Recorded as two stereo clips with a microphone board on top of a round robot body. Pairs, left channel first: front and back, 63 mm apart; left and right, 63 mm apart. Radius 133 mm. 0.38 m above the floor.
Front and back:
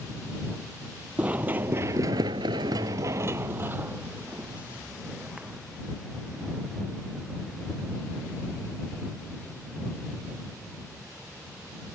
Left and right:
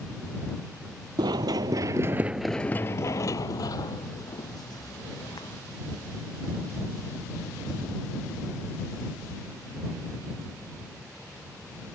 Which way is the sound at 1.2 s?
110° right.